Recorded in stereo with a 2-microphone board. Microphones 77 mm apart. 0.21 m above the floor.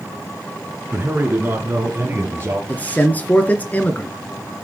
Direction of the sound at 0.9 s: 30° right (ahead or behind).